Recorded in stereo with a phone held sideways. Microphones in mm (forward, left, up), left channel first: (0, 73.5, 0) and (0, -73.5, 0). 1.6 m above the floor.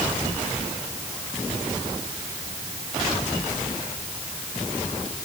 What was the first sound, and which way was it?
Only background noise.